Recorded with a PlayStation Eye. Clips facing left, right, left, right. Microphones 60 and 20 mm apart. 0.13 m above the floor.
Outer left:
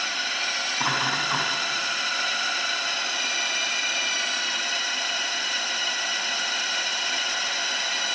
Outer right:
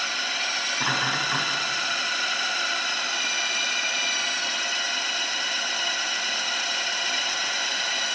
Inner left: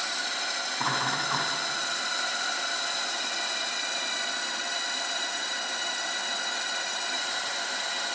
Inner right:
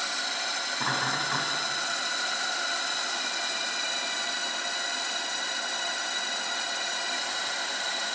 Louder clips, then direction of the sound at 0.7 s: Even, inner left 1 dB; 30° left (ahead or behind).